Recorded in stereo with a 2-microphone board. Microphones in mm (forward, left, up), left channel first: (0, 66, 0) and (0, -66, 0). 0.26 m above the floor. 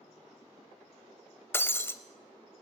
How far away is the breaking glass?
About 0.6 m.